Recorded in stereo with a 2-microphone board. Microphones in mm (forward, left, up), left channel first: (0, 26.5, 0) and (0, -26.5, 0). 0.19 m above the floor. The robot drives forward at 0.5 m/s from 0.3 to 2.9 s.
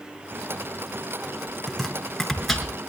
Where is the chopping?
5° left (ahead or behind), 2 m; by 2.7 s centre (ahead or behind), 2.5 m.